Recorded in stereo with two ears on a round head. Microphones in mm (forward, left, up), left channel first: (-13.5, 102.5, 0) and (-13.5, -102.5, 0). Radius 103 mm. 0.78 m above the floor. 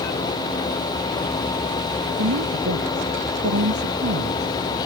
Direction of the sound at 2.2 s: 70° right (ahead or behind).